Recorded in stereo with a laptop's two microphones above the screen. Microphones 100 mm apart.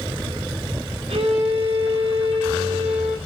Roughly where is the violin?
Right.